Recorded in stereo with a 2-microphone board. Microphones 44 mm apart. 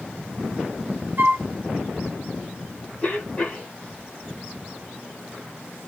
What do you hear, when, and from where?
1.2 s a flute: 55° right (ahead or behind), 0.7 m
3.0 s a cough: 30° left (ahead or behind), 1.4 m